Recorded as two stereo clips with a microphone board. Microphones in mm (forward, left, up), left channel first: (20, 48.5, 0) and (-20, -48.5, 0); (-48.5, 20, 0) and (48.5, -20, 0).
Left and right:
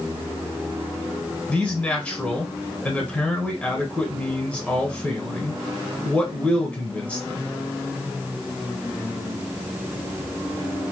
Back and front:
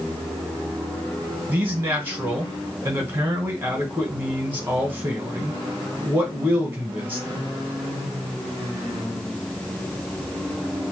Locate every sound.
1.5 s a man speaking: 10° left, 1.1 m